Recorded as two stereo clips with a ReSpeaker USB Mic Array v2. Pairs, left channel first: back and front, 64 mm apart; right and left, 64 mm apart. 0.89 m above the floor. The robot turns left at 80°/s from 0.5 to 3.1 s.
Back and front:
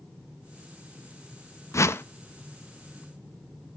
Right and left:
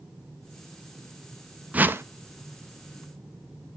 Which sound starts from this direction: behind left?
A whoosh, at 1.7 s.